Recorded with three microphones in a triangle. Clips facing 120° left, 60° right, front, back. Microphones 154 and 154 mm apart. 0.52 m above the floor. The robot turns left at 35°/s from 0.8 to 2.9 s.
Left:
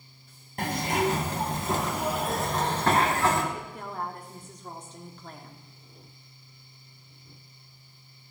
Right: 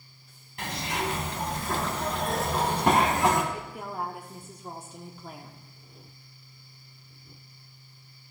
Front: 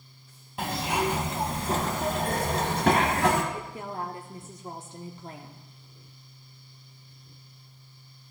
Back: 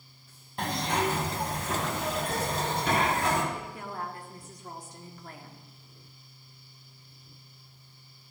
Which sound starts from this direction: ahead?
A woman speaking, at 3.5 s.